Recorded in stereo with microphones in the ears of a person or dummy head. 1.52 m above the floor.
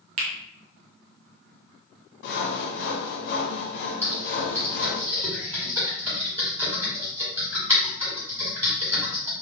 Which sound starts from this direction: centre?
Typing on a keyboard, at 4.0 s.